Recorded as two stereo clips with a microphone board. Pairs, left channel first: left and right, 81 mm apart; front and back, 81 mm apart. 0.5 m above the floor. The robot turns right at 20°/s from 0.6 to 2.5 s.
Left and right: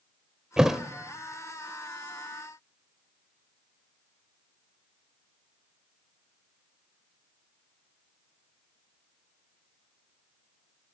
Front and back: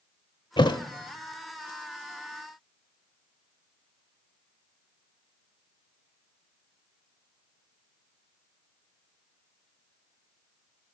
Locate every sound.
0.6 s a thud: 10° right, 0.8 m; by 0.8 s 5° right, 0.8 m